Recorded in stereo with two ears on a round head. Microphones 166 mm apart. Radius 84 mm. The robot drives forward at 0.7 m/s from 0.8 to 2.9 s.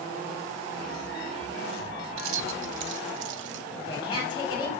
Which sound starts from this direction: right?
Keys jangling, at 2.2 s.